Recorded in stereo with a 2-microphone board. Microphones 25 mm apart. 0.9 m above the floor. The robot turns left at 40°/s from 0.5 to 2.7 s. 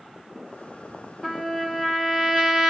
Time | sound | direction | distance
1.2 | a trumpet | straight ahead | 0.9 m